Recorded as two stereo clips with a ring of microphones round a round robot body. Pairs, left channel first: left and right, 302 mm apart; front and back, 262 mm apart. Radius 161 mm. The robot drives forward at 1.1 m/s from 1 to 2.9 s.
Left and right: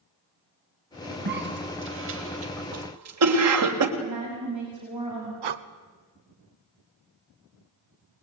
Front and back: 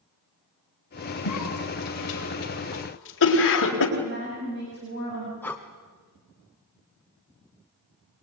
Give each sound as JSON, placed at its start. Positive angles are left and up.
{"t": 1.2, "sound": "a cough", "azimuth_deg": -30, "distance_m": 4.5}
{"t": 4.0, "sound": "a woman speaking", "azimuth_deg": -120, "distance_m": 6.0}
{"t": 5.4, "sound": "breathing", "azimuth_deg": -85, "distance_m": 1.1}